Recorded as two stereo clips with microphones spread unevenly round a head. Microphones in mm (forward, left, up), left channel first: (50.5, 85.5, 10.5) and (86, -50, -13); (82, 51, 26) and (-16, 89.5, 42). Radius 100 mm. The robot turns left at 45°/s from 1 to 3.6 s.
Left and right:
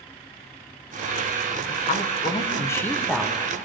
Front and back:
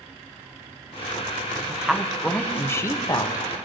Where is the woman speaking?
75° left, 0.8 m; by 3.5 s 5° right, 0.8 m.